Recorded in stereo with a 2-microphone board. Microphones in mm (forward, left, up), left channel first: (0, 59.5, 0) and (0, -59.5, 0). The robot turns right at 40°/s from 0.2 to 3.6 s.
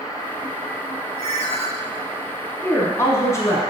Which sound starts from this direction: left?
A ringtone, at 1.2 s.